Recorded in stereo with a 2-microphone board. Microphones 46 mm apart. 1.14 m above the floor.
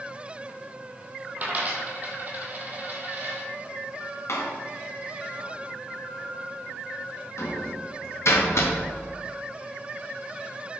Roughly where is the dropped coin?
Right.